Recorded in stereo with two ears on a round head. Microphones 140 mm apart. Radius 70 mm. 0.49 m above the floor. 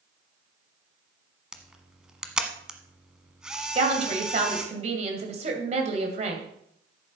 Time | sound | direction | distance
1.5 | a camera shutter | 5° right (ahead or behind) | 1.0 m
3.8 | a woman speaking | 45° right (ahead or behind) | 2.5 m